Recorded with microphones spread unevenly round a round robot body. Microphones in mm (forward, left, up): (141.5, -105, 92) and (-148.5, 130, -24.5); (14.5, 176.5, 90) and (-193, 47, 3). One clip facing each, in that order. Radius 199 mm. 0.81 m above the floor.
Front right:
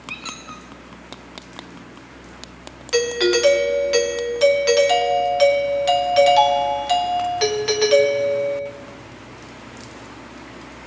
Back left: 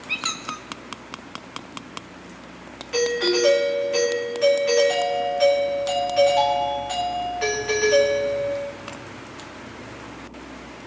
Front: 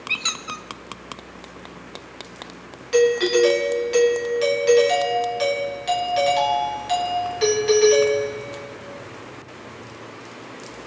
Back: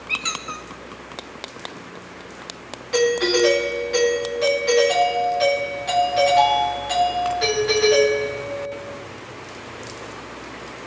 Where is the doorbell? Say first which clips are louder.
Front right 3 dB, front 2 dB; 30° right, 1.5 m.